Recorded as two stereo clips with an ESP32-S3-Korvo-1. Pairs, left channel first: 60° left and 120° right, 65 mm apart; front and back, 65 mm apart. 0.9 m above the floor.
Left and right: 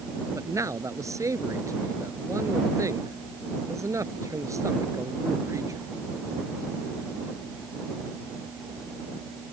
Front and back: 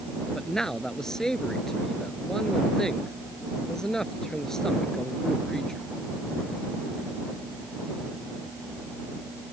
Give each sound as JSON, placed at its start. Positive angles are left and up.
{"t": 0.3, "sound": "a man speaking", "azimuth_deg": -80}